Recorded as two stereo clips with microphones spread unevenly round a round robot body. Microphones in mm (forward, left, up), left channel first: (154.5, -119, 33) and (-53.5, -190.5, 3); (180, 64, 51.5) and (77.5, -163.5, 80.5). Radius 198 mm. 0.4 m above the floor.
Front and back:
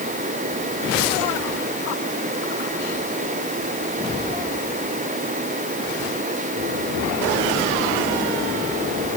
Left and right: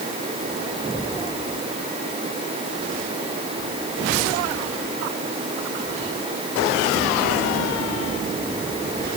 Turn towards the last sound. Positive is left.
No sound to turn to.